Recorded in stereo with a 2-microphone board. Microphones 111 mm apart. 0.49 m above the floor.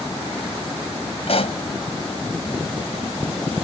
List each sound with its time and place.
1.3 s a pop: 65° left (ahead or behind)